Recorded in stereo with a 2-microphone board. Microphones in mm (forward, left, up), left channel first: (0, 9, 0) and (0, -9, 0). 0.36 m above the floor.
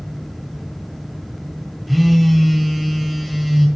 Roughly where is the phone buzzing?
Centre.